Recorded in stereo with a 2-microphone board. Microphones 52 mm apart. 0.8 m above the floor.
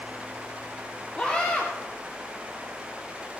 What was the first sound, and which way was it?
A scream, 25° left (ahead or behind).